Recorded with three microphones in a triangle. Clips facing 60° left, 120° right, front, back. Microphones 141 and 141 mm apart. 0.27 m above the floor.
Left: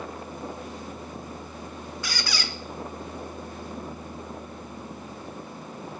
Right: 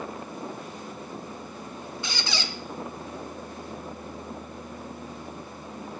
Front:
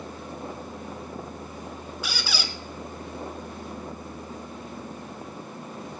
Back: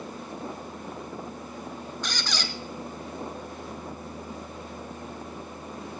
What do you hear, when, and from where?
2.0 s a squeak: 75° right, 1.0 m